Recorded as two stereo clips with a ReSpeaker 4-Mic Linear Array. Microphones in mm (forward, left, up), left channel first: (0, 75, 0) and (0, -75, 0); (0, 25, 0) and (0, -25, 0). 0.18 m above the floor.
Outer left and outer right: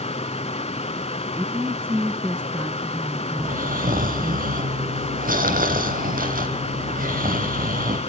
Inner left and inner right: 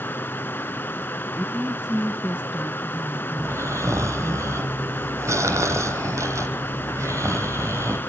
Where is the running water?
45° left (ahead or behind), 0.8 m.